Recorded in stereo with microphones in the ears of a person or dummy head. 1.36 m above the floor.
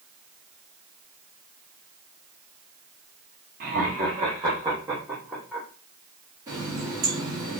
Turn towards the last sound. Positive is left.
turn(degrees=-25)  # may be behind; listen again after turning